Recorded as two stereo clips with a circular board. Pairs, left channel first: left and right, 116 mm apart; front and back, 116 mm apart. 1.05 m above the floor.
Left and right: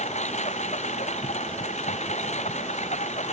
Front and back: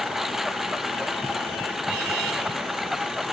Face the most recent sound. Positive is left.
turn(degrees=95)